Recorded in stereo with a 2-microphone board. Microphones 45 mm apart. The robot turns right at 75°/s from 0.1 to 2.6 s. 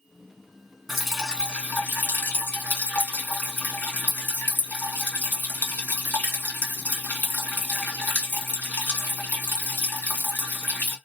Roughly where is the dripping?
Centre.